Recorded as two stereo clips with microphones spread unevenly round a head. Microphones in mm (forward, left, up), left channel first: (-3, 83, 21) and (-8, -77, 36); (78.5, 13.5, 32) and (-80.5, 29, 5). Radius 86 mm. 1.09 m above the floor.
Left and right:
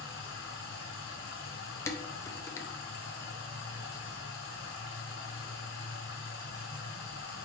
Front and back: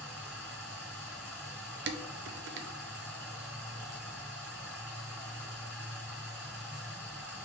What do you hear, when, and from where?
0.0 s running water: 75° left, 2 m
1.9 s dishes clattering: 165° left, 0.5 m